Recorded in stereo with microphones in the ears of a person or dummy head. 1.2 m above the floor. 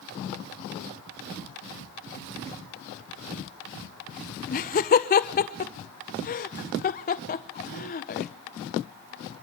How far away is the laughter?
About 0.5 m.